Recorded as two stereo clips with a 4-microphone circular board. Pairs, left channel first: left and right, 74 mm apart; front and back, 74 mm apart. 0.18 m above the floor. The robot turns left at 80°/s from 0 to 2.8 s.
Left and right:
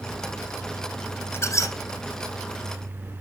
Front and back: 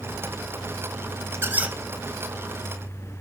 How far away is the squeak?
About 0.7 m.